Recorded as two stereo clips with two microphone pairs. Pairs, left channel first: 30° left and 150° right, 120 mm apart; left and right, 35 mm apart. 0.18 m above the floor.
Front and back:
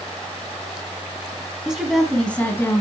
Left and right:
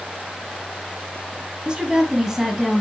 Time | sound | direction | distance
1.6 | a woman speaking | 80° right | 1.4 m